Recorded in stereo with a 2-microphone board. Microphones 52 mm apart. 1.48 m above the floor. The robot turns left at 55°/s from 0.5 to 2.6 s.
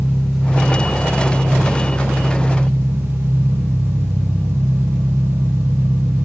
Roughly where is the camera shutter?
No camera shutter in this recording.